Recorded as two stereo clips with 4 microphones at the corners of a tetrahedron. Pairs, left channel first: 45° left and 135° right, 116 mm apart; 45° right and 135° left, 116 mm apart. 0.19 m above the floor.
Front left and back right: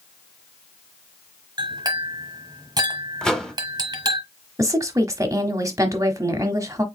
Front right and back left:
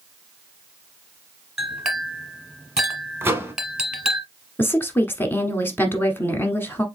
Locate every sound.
1.6 s a clink: 145° right, 1.2 m
3.2 s a microwave: 120° left, 0.9 m
4.6 s a woman speaking: 100° right, 1.1 m